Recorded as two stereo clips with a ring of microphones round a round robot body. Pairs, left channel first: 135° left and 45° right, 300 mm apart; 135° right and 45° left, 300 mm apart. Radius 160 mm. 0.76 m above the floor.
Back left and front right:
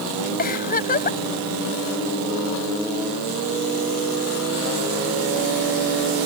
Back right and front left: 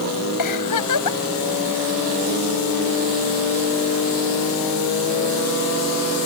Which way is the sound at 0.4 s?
160° right.